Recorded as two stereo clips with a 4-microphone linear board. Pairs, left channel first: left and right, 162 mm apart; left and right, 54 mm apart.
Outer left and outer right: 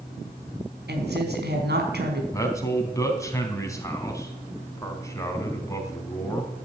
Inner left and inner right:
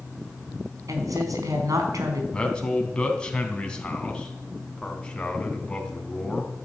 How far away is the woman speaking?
About 4 m.